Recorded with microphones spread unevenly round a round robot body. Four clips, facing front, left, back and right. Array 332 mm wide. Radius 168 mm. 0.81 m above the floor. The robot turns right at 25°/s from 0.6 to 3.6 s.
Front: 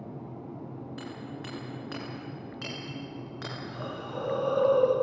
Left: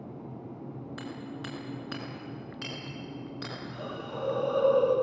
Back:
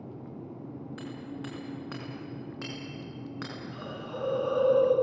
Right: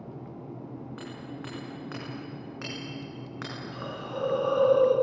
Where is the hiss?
85° right, 6.5 m.